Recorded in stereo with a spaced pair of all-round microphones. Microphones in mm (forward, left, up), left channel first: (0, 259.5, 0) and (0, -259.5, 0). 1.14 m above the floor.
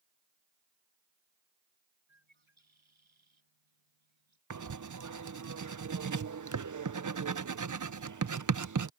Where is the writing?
35° right (ahead or behind).